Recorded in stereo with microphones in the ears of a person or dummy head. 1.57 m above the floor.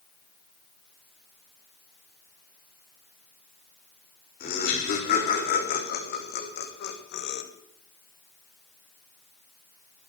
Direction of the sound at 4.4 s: 40° left (ahead or behind).